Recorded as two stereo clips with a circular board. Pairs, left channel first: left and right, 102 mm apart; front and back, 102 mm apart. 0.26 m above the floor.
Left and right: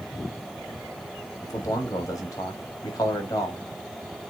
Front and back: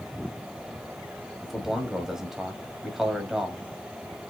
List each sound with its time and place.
1.4 s a man speaking: 100° left, 1.3 m